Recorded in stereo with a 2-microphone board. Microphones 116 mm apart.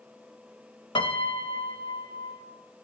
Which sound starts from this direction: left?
A piano, at 0.9 s.